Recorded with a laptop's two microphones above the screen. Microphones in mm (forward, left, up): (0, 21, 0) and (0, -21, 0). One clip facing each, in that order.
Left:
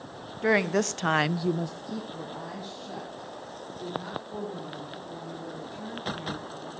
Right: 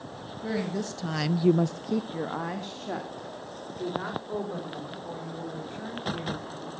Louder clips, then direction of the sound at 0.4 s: Left 7 dB; 80° left.